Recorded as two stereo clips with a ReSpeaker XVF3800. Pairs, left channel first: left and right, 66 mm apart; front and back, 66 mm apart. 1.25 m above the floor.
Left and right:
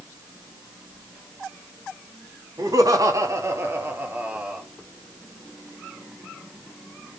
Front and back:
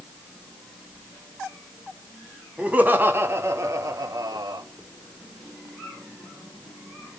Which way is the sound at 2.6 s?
110° right.